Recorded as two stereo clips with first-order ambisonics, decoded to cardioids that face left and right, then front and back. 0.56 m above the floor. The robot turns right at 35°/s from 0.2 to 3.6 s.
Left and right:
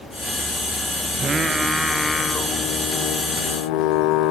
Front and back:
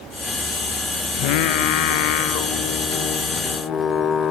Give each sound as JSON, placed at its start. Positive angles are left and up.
{"t": 1.1, "sound": "singing", "azimuth_deg": -20, "distance_m": 0.7}